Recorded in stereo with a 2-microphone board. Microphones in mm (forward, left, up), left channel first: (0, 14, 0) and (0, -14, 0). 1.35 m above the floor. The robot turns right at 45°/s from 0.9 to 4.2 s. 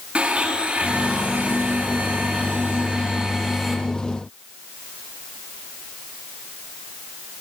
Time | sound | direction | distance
0.1 | a blender | 135° right | 7 m